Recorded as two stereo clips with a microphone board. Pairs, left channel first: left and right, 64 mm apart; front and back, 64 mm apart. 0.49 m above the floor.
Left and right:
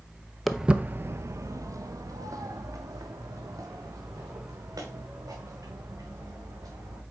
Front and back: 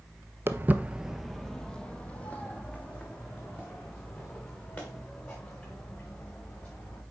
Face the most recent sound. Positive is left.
turn(degrees=-60)